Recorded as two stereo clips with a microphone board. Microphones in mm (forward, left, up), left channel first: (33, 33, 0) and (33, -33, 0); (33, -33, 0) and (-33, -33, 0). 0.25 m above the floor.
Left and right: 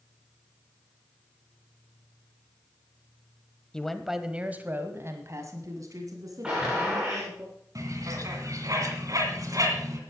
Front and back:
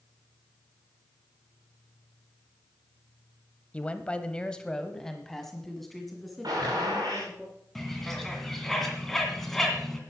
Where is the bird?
85° right, 2 m.